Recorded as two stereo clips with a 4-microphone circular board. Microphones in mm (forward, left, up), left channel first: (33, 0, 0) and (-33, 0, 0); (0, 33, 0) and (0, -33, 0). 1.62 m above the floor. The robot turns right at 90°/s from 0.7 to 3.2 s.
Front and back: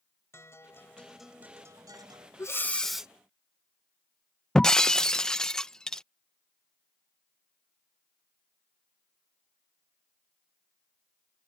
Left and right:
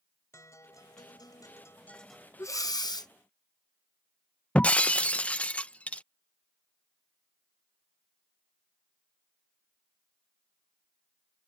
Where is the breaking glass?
65° left.